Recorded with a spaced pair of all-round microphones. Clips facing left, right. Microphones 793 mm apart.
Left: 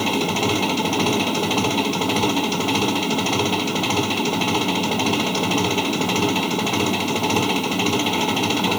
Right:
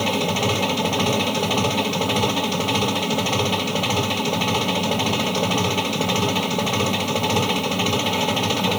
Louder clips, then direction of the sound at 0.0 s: Left 1 dB; 15° right (ahead or behind).